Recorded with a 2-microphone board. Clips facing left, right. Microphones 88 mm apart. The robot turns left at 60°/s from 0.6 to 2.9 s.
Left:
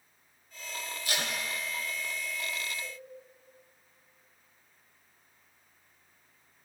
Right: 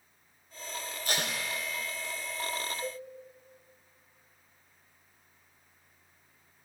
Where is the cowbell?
40° right (ahead or behind), 2.0 m; by 3.0 s 35° right (ahead or behind), 2.0 m.